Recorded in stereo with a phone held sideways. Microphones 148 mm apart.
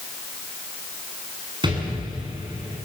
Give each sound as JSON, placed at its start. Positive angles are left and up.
{"t": 1.6, "sound": "an explosion", "side_deg": -30, "distance_m": 7.5}